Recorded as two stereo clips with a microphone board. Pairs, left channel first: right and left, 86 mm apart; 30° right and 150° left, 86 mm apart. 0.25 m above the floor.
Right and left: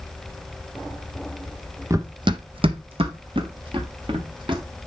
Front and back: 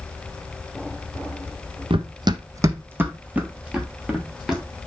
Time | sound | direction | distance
1.9 | running footsteps | 145° left | 0.6 m